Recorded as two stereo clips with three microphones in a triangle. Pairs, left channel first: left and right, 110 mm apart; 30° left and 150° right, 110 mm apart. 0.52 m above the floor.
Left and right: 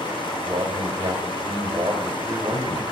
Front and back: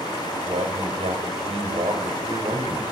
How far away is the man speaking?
About 2.5 m.